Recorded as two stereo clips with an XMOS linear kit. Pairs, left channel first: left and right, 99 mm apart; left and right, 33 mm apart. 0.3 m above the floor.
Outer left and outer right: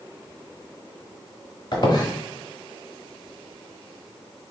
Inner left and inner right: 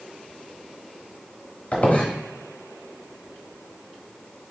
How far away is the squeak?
About 1.1 m.